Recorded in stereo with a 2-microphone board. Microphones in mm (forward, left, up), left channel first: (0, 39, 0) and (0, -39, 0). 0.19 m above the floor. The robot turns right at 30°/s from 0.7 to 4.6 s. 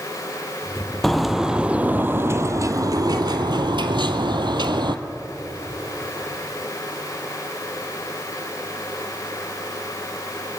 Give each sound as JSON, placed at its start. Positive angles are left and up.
{"t": 1.0, "sound": "a bird", "azimuth_deg": 175, "distance_m": 0.8}